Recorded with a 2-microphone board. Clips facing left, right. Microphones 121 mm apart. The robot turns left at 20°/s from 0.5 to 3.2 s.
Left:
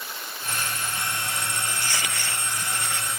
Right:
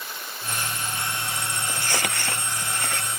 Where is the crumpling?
50° right (ahead or behind), 1.3 m; by 3.1 s 65° right (ahead or behind), 1.3 m.